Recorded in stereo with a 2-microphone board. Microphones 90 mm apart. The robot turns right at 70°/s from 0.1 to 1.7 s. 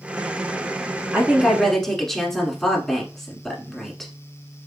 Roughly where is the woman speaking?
Ahead right.